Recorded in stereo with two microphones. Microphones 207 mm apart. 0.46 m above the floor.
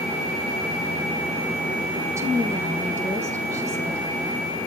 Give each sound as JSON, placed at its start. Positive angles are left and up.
{"t": 2.0, "sound": "a woman speaking", "side_deg": -15, "distance_m": 6.5}